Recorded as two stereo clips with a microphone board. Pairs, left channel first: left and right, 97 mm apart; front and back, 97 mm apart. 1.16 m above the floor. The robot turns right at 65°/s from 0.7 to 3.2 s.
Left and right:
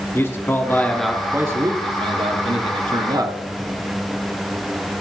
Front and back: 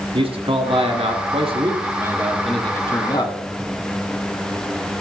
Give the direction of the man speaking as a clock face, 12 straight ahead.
7 o'clock.